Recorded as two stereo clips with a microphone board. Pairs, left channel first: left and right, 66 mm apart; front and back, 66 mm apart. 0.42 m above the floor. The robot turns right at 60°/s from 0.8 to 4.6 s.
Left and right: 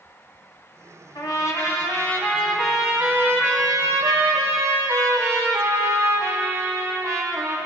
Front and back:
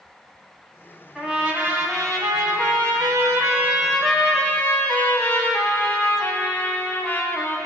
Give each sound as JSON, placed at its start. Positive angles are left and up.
{"t": 1.1, "sound": "a trumpet", "azimuth_deg": 95, "distance_m": 1.6}